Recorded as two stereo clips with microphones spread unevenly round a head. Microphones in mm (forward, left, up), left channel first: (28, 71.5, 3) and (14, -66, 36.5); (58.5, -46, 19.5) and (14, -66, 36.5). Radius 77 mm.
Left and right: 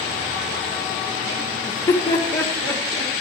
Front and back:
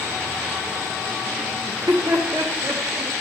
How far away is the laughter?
About 1.6 m.